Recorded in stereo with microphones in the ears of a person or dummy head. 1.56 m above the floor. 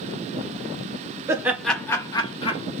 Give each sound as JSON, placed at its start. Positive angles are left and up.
{"t": 1.3, "sound": "laughter", "side_deg": -20, "distance_m": 0.7}